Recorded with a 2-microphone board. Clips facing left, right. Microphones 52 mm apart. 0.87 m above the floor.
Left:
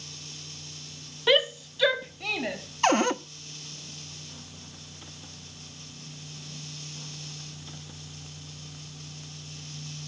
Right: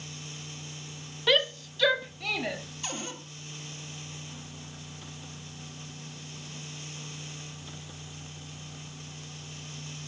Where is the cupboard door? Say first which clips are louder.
Left 17 dB; 65° left (ahead or behind), 0.7 m.